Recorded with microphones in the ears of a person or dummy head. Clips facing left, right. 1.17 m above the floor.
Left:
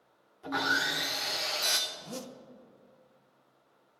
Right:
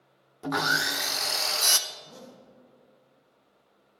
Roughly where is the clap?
I don't hear a clap.